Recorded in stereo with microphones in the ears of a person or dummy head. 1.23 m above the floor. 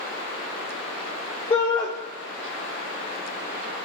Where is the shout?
30° left (ahead or behind), 1.1 m.